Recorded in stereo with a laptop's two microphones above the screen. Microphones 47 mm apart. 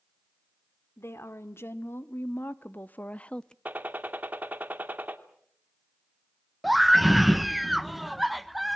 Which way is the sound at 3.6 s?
35° right (ahead or behind).